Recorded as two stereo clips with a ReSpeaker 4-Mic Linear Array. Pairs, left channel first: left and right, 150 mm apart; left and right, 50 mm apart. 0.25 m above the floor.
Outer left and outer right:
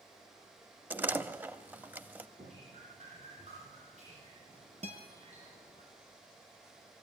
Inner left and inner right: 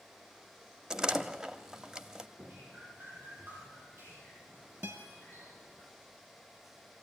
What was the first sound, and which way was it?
A door slam, 10° right (ahead or behind).